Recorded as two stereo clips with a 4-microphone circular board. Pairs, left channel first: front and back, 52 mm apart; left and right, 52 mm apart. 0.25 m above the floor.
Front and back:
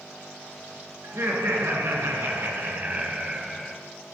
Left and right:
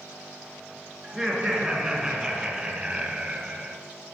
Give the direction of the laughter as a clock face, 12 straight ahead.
6 o'clock.